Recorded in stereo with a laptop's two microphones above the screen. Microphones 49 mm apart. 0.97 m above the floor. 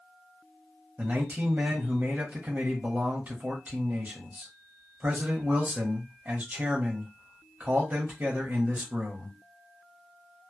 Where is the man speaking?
30° right (ahead or behind), 1.0 m.